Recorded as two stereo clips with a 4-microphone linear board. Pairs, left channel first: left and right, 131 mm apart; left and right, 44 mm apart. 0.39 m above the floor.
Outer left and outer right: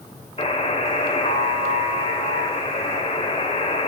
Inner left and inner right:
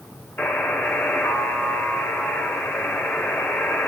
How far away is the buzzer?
About 1.4 m.